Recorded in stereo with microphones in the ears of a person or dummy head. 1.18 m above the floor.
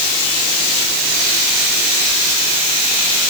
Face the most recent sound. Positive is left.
No sound to turn to.